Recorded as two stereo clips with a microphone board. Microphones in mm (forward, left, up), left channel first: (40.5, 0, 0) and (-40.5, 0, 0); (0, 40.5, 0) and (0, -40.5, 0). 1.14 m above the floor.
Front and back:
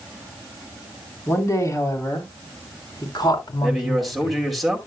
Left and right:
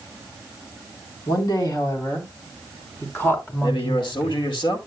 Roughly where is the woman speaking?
Ahead left.